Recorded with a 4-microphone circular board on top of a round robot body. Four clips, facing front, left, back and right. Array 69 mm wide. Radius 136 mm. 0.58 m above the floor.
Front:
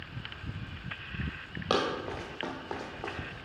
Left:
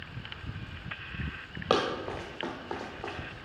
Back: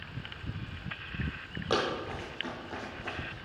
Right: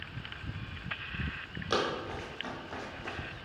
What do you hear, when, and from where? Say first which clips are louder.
1.7 s running footsteps: left 4 dB, front 1 dB; 70° left, 1.2 m; by 3.4 s 30° left, 1.7 m